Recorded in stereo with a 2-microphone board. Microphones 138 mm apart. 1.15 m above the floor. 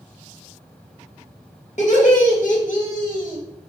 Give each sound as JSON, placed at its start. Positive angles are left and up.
{"t": 1.8, "sound": "laughter", "side_deg": 60, "distance_m": 1.7}